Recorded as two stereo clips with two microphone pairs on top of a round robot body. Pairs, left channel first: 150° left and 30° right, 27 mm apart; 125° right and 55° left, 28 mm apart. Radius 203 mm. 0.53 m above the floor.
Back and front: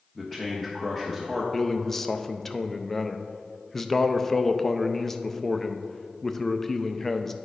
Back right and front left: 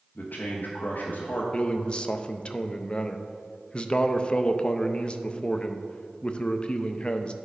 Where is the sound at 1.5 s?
155° right, 0.8 m.